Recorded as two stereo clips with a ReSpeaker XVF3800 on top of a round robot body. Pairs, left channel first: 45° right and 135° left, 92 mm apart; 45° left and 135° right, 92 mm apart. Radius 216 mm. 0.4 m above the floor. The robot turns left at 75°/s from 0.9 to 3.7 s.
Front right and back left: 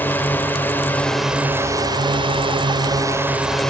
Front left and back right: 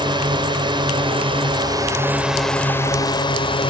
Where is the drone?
115° right; by 3.7 s 35° left.